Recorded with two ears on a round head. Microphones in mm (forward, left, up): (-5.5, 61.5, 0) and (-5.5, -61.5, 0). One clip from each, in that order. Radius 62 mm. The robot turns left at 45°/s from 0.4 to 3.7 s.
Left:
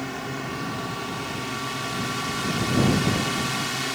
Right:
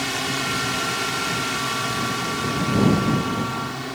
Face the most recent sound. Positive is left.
turn(degrees=115)